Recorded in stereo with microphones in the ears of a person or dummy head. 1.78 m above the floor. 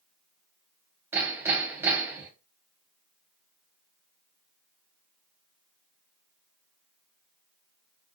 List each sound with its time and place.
1.1 s hammering: 10° right (ahead or behind), 1.0 m